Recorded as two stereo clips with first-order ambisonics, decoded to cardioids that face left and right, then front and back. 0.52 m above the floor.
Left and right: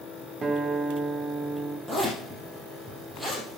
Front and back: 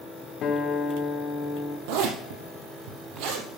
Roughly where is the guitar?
Ahead right.